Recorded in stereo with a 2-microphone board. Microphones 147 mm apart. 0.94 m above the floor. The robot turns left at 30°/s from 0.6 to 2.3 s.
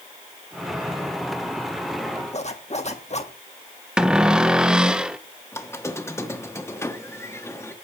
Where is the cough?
No cough in this recording.